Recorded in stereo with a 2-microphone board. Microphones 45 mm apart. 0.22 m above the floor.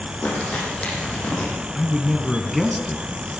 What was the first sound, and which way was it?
Crumpling, 30° left (ahead or behind).